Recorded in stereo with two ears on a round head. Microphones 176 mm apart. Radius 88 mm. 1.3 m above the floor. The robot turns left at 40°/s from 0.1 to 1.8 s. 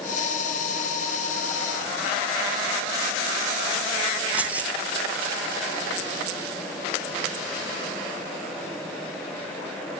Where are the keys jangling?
10° right (ahead or behind), 0.7 m.